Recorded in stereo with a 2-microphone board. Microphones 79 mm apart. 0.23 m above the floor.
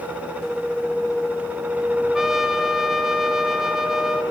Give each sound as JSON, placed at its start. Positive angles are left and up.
{"t": 2.1, "sound": "a trumpet", "side_deg": -5, "distance_m": 1.7}